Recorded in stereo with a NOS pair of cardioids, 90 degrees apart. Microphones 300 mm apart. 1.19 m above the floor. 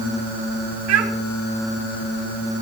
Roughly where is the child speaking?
Ahead right.